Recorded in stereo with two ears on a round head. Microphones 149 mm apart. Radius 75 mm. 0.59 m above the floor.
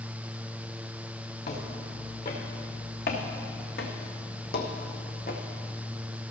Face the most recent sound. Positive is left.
turn(degrees=55)  # may be behind; listen again after turning